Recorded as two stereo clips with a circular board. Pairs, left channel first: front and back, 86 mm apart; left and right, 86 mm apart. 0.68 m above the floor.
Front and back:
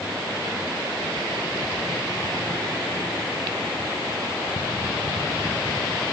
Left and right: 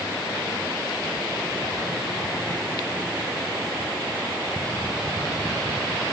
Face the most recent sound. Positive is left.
No sound to turn to.